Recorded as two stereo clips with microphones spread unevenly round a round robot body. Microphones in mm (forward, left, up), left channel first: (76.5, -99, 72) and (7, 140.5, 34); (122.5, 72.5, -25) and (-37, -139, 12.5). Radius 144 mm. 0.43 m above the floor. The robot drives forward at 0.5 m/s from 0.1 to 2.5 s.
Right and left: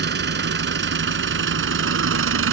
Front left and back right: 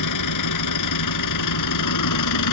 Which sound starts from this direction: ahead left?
An engine running, at 0.0 s.